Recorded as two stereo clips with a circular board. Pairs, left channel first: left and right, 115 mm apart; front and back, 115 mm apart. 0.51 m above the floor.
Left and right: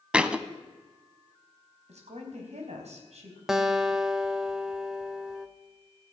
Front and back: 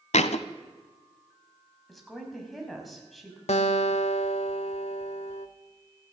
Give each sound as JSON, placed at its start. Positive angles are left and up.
{"t": 0.1, "sound": "a thud", "azimuth_deg": -10, "distance_m": 0.9}
{"t": 1.9, "sound": "a woman speaking", "azimuth_deg": -90, "distance_m": 4.0}
{"t": 3.5, "sound": "a guitar", "azimuth_deg": -5, "distance_m": 1.1}